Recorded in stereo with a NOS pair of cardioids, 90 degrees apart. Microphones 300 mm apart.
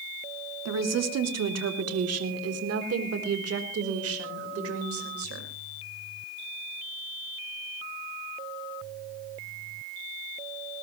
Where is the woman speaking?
60° right, 2.5 m; by 5.5 s 50° right, 5 m.